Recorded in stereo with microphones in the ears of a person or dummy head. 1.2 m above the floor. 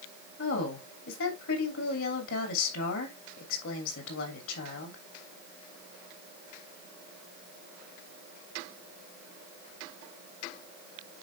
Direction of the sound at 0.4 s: 80° left.